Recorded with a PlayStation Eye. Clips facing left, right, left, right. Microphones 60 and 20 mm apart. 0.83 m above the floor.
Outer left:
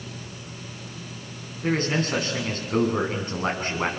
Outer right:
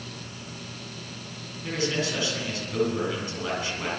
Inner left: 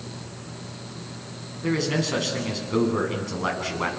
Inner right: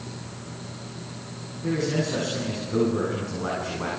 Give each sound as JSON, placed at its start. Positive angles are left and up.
{"t": 1.6, "sound": "a man speaking", "side_deg": 45, "distance_m": 9.5}